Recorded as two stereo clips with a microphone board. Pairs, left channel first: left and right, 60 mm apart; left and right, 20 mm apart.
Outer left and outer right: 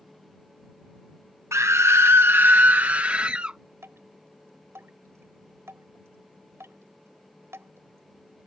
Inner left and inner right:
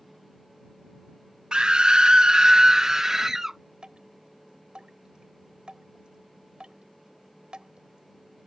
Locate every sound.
1.5 s a scream: 50° right (ahead or behind); by 3.6 s 20° right (ahead or behind)
3.8 s dripping: 45° right (ahead or behind)